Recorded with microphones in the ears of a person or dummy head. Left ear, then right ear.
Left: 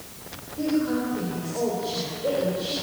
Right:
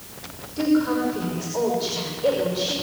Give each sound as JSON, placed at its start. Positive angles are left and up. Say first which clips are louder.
{"t": 0.6, "sound": "a woman speaking", "louder": "right 4 dB", "side_deg": -65, "distance_m": 5.0}